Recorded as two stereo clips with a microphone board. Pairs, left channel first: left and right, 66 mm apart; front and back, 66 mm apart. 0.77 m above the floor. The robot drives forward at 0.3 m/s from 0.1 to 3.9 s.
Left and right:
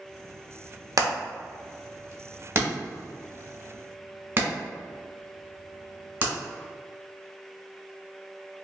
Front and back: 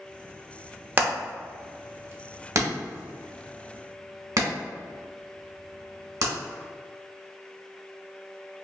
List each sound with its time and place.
1.0 s hammering: 120° right, 0.8 m; by 6.3 s 150° right, 1.5 m